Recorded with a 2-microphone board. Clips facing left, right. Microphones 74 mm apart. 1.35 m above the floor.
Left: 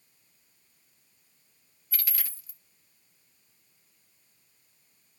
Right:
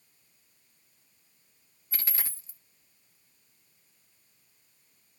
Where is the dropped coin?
30° right (ahead or behind), 0.7 m.